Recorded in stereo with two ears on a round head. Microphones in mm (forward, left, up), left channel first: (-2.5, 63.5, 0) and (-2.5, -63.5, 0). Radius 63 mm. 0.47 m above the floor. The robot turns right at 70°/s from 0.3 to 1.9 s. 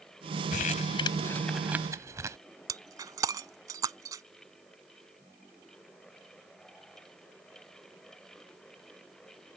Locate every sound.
0.5 s crumpling: 65° left (ahead or behind); by 2.4 s 20° right (ahead or behind)
2.7 s breaking glass: 25° right (ahead or behind)